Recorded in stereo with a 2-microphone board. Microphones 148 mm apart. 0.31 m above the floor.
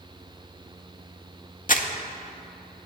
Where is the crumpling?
60° left (ahead or behind), 0.7 m.